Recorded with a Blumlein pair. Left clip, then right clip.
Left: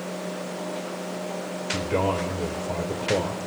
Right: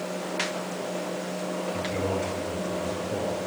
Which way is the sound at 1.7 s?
45° left.